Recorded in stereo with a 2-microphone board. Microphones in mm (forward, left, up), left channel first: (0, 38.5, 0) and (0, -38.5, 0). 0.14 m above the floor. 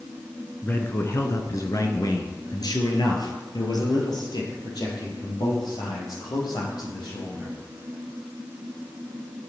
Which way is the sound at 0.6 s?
30° left (ahead or behind).